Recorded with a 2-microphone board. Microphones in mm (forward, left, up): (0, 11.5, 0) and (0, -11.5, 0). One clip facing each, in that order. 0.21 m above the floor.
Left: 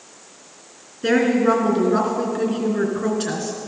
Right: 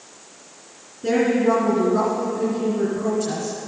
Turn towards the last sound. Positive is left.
turn(degrees=55)  # may be behind; listen again after turning